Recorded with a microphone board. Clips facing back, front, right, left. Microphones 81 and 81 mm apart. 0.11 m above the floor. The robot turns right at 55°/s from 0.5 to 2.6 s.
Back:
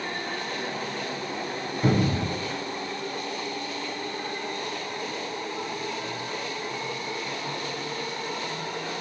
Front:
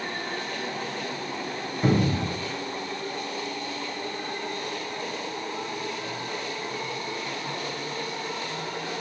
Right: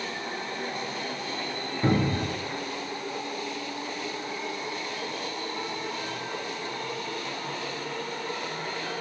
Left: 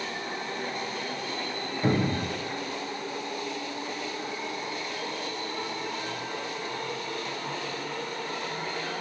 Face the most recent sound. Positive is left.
turn(degrees=-10)